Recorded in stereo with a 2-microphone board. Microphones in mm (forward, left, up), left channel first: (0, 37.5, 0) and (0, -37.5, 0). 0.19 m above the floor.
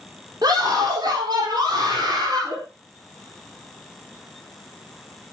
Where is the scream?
65° right (ahead or behind), 5.5 m.